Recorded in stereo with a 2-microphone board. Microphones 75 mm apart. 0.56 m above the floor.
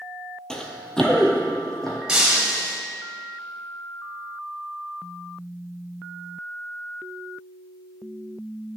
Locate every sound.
0.5 s running footsteps: 10° left (ahead or behind), 0.7 m; by 2.0 s 5° left (ahead or behind), 1.7 m
2.1 s breaking glass: 10° right (ahead or behind), 1.4 m